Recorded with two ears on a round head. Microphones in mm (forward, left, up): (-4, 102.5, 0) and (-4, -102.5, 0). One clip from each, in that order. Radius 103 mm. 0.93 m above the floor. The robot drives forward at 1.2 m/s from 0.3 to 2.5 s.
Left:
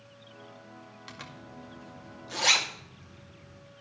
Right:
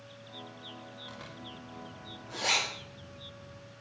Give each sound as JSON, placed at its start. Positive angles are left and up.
{"t": 1.1, "sound": "a zipper", "side_deg": 65, "distance_m": 2.0}